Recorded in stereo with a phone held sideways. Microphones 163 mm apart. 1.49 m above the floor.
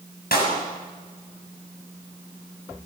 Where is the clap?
85° left, 7 m.